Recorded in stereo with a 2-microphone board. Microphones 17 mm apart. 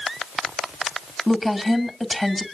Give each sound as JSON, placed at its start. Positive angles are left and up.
{"t": 1.3, "sound": "a woman speaking", "side_deg": 10, "distance_m": 2.0}